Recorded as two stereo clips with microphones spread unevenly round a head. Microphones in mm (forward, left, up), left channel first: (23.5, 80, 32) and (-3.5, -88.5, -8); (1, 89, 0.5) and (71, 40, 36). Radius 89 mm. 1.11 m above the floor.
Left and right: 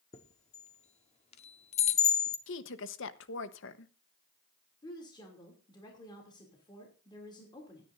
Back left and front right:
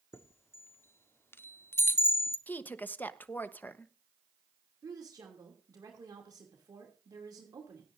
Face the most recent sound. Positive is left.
turn(degrees=15)